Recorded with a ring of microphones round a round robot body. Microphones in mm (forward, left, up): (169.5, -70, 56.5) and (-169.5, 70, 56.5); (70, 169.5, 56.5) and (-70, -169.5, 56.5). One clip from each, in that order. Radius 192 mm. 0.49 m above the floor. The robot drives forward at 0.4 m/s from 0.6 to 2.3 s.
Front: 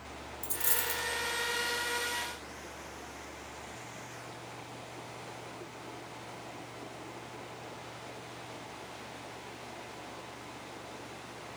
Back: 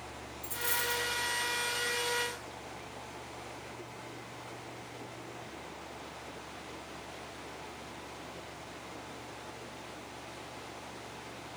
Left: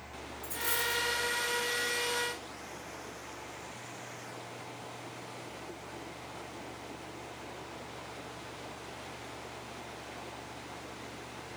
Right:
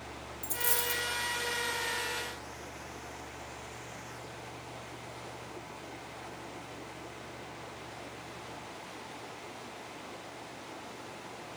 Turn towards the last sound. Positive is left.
turn(degrees=-110)